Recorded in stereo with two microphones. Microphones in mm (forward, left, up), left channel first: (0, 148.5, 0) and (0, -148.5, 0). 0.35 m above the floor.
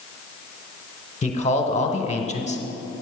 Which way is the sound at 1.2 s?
25° left (ahead or behind).